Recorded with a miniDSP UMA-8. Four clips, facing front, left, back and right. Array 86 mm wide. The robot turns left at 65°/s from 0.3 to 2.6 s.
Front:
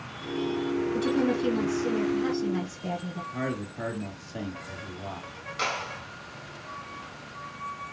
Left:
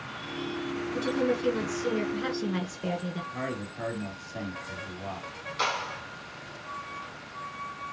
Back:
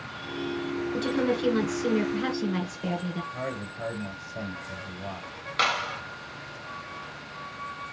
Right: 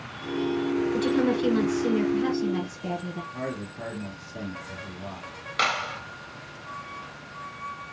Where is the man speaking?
25° left, 3.5 m.